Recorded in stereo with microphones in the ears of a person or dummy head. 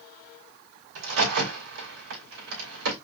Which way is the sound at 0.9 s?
70° right (ahead or behind).